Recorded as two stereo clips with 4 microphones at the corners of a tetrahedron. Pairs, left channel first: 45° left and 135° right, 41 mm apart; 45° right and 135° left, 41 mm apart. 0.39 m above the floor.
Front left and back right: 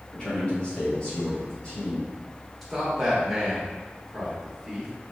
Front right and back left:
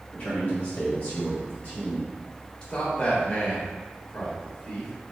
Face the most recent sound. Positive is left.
turn(degrees=-45)